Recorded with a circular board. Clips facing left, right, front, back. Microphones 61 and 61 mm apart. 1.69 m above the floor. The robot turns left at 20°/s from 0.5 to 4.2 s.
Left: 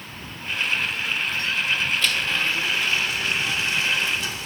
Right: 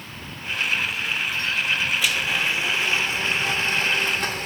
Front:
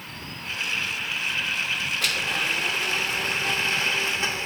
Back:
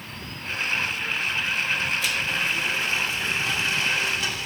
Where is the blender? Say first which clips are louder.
Even, back 1 dB; 10° right, 3 m; by 4.5 s 50° right, 3 m.